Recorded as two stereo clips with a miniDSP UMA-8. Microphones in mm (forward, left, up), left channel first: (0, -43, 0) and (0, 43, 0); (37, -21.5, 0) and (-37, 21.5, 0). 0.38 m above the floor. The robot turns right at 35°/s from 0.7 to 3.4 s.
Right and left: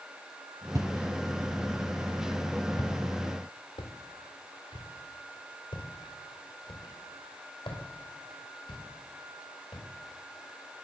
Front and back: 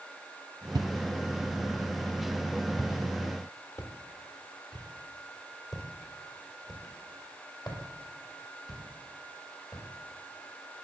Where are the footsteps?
130° left, 0.5 m; by 9.8 s 75° right, 6.5 m.